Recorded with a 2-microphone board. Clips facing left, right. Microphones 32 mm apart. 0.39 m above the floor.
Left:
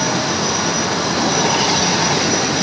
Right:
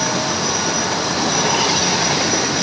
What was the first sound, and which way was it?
Only background noise.